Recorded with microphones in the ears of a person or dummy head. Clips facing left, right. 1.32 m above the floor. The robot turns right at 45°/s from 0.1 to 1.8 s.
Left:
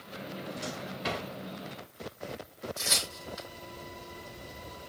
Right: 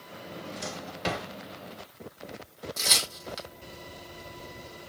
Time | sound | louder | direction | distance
0.2 | a drawer | even | 20° right (ahead or behind) | 2.5 m
2.8 | tearing paper | right 2 dB | 70° right (ahead or behind) | 3 m